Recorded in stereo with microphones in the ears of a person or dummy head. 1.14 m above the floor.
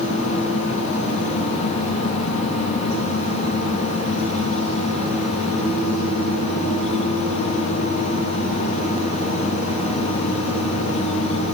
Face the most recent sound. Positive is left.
No sound to turn to.